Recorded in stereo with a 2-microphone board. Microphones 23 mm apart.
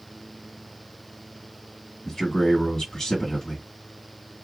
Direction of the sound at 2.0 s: 20° left (ahead or behind).